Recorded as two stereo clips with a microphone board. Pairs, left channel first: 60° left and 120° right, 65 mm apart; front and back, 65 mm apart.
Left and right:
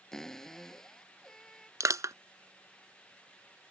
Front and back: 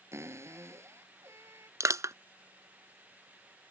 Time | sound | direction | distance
0.1 | a cupboard door | 140° left | ?
1.8 | crushing | 150° right | ?